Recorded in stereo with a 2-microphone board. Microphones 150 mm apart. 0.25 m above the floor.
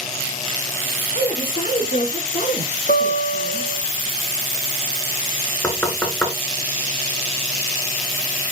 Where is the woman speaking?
65° left (ahead or behind), 4 m.